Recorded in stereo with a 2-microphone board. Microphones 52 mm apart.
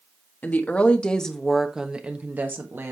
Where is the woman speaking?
35° left (ahead or behind), 1.4 m; by 2.9 s 55° right (ahead or behind), 1.3 m.